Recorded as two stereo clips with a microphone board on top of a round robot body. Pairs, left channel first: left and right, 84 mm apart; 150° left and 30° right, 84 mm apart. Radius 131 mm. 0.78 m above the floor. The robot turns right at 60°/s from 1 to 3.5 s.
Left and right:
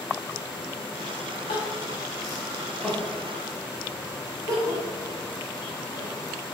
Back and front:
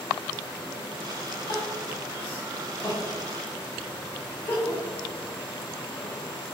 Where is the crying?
95° left, 1.7 m; by 6.1 s 145° right, 1.7 m.